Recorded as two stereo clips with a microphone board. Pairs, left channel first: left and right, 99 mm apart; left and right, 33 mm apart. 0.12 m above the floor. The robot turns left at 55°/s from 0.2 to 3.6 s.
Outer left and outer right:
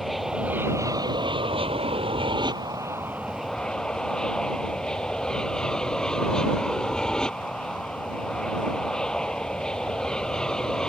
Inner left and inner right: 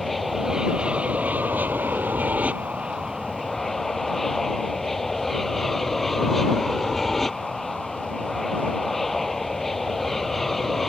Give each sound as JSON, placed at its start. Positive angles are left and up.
{"t": 0.0, "sound": "an aircraft", "azimuth_deg": 0}